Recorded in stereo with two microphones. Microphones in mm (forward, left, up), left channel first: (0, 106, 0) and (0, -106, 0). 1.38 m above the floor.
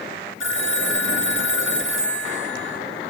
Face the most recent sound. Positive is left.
turn(degrees=65)  # may be behind; listen again after turning